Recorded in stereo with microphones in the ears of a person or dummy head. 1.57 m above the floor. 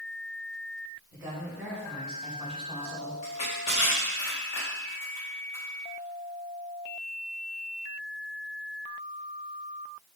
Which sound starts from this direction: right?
A woman speaking, at 1.1 s.